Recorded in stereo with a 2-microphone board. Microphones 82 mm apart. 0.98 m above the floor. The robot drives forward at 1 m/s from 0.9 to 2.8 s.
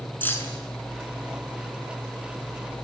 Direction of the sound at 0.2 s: 25° left (ahead or behind).